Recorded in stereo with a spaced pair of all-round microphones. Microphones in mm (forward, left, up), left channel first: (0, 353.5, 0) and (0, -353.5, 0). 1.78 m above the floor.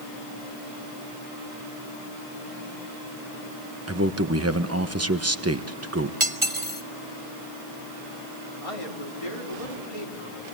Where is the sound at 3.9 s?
20° right (ahead or behind), 1.1 m.